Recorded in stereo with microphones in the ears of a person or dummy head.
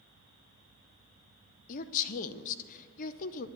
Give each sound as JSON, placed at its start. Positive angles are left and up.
{"t": 1.7, "sound": "a woman speaking", "side_deg": 45, "distance_m": 0.7}